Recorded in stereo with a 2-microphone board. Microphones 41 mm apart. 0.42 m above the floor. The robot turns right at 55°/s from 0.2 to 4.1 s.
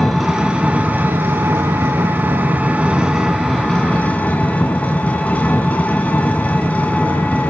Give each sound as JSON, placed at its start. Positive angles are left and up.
{"t": 0.0, "sound": "an engine running", "azimuth_deg": -175, "distance_m": 2.5}